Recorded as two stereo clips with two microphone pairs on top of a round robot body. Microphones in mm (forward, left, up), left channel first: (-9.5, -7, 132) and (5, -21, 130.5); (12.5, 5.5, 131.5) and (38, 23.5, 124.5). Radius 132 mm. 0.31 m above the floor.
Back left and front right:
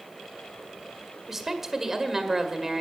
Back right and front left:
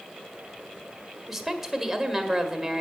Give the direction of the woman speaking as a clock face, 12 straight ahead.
12 o'clock.